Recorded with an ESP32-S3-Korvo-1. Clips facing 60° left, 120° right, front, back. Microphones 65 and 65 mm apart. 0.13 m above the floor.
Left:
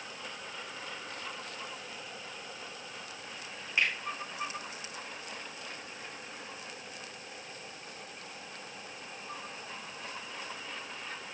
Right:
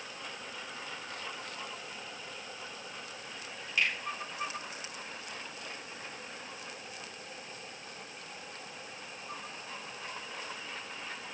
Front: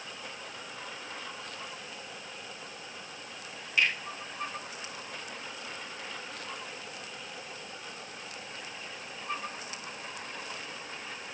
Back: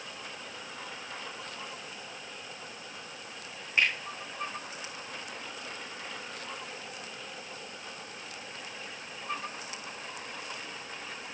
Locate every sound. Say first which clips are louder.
3.8 s a finger snap: left 1 dB, even; 120° left, 6 m